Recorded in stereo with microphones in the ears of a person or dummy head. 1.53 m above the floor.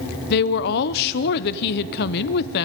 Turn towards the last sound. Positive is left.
turn(degrees=60)  # may be behind; listen again after turning